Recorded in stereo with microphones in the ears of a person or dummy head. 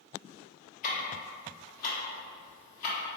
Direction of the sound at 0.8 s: 50° left (ahead or behind).